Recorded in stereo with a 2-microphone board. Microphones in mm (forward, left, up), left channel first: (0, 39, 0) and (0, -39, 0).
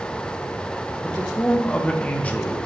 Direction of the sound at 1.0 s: 20° left (ahead or behind).